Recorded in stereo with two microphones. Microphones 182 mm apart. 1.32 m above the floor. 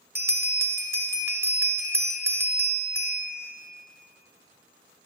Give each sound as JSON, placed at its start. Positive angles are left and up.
{"t": 0.1, "sound": "a bell", "side_deg": -15, "distance_m": 1.2}